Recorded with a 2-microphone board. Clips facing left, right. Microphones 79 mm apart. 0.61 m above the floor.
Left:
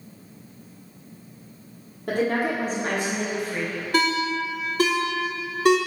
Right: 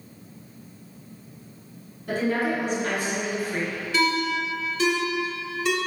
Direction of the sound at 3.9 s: 50° left (ahead or behind).